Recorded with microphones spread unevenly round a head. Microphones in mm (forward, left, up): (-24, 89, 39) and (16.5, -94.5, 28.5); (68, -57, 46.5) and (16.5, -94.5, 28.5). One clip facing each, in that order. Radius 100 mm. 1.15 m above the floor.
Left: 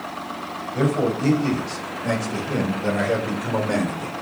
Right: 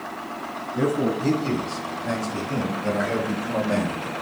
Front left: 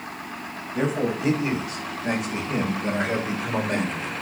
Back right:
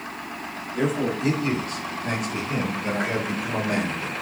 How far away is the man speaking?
About 6.5 m.